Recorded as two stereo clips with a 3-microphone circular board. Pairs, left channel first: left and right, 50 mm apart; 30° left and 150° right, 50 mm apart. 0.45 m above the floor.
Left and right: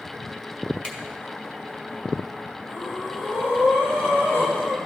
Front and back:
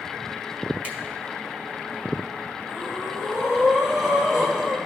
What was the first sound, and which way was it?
A finger snap, 155° left.